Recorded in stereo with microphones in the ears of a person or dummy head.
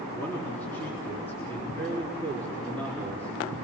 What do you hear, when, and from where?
0.1 s a man speaking: 10° left (ahead or behind), 4 m